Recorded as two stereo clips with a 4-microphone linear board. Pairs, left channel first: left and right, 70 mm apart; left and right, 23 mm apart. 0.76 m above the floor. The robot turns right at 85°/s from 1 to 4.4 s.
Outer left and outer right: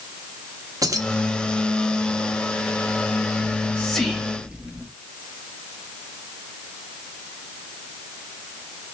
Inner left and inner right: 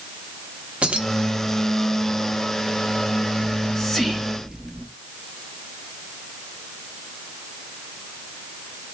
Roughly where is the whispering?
Behind left.